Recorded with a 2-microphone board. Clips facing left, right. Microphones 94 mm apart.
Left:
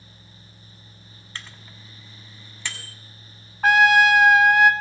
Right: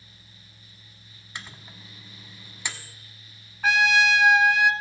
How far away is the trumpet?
About 0.5 m.